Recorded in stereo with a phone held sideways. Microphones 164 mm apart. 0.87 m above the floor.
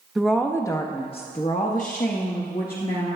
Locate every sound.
0.1 s a woman speaking: centre (ahead or behind), 0.7 m; by 3.2 s 65° left (ahead or behind), 1.6 m